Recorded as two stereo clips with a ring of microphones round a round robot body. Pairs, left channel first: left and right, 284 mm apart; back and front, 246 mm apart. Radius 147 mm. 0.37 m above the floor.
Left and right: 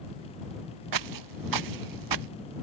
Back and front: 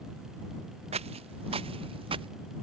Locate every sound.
0.9 s footsteps: 70° right; by 2.3 s 75° right